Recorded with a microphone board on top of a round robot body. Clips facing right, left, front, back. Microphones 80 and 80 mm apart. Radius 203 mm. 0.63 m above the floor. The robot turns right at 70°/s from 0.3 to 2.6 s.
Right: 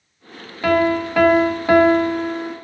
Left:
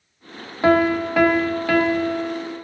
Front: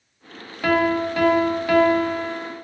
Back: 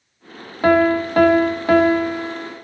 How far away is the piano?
About 1.3 m.